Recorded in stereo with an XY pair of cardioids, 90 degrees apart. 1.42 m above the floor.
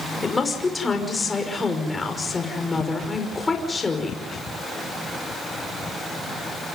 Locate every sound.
0.2 s a woman speaking: 30° left, 5.5 m